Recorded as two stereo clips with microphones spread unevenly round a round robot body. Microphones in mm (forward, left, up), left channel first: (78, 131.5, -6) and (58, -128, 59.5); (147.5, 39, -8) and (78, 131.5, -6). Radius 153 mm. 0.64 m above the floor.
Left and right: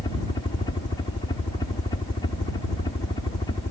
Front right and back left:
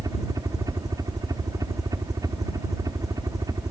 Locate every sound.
0.0 s a helicopter: 110° left